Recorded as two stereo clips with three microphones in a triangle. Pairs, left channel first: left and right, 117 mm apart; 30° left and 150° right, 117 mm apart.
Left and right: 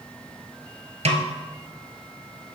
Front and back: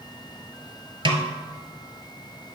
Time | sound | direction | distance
1.1 | a snare drum | 110° right | 1.0 m